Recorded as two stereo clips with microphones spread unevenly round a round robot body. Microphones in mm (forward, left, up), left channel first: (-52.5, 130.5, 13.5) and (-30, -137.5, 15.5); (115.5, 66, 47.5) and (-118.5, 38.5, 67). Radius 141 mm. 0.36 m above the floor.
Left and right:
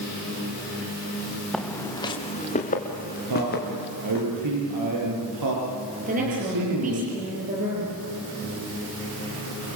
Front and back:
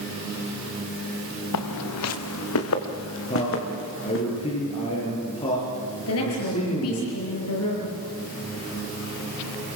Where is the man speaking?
60° right, 9 m.